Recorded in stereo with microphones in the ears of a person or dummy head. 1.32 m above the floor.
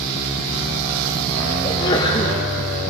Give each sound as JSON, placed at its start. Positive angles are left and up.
{"t": 1.6, "sound": "a sneeze", "side_deg": 25, "distance_m": 1.7}